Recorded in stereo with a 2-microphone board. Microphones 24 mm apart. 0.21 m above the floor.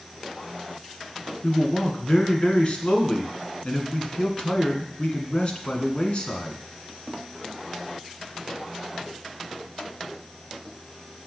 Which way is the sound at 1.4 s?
50° left (ahead or behind).